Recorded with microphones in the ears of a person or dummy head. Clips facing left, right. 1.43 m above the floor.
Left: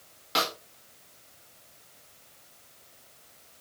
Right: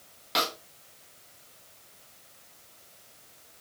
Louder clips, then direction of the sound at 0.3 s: Left 1 dB; centre (ahead or behind).